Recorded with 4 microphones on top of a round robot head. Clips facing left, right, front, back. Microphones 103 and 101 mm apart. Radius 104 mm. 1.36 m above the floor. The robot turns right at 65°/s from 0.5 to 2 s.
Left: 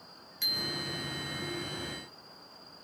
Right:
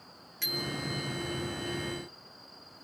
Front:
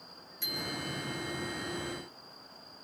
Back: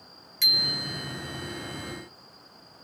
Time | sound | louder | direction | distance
0.4 | a bicycle bell | right 3 dB, back 2 dB | 170° left | 2.5 m